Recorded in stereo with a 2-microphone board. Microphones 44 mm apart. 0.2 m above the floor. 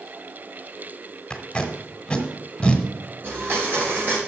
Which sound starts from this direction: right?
A blender, at 3.2 s.